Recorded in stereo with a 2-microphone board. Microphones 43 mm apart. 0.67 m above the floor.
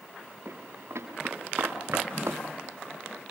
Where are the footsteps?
80° right, 6 m; by 2.4 s 85° right, 6 m.